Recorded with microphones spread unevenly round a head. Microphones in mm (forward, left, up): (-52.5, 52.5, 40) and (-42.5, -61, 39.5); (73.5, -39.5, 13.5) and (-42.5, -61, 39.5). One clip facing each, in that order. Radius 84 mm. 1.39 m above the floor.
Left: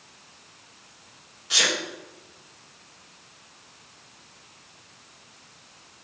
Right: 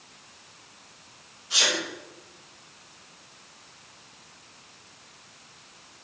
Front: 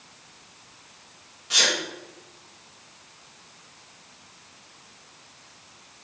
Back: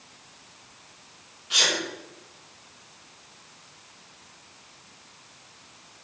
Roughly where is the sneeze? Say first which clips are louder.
Left 1 dB, front 1 dB; ahead left.